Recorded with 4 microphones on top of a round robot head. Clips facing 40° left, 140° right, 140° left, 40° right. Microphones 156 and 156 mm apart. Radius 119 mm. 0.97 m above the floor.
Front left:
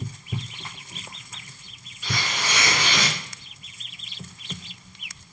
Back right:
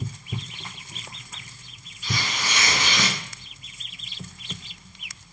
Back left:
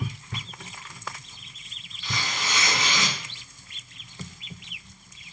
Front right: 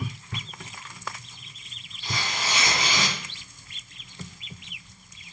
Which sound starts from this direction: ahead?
Tearing paper, at 2.0 s.